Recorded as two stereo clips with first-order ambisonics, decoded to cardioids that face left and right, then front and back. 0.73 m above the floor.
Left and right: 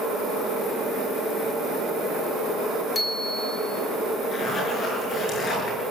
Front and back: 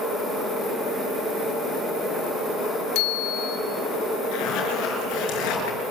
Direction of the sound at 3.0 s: 15° left.